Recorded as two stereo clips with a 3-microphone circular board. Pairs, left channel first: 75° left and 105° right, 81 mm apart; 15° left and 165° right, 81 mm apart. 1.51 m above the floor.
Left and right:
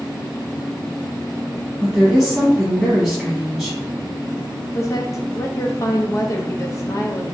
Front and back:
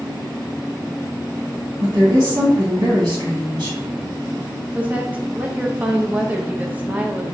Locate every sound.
1.8 s a woman speaking: 165° left, 1.7 m
4.8 s a woman speaking: 125° left, 0.6 m